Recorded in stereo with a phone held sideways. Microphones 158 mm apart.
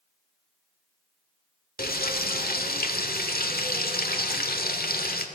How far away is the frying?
About 1.4 m.